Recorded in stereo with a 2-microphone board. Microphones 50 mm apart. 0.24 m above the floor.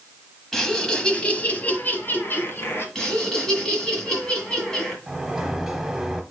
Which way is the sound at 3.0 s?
15° left (ahead or behind).